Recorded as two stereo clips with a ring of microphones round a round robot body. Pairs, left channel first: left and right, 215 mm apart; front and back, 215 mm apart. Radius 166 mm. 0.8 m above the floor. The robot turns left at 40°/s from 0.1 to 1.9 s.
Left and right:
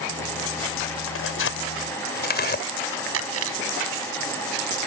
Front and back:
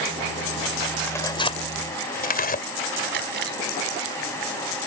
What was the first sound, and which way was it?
Tearing paper, 80° left.